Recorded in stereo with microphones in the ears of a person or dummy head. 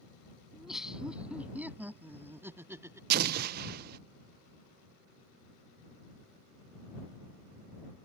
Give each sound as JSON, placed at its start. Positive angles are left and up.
{"t": 0.5, "sound": "laughter", "side_deg": -5}
{"t": 3.1, "sound": "an explosion", "side_deg": -50}